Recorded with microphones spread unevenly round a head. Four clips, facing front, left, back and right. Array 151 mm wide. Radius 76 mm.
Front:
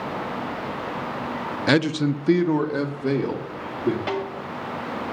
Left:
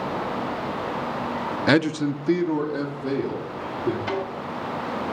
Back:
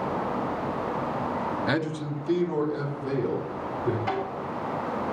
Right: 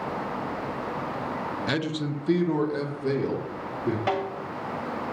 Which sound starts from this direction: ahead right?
A snare drum, at 4.1 s.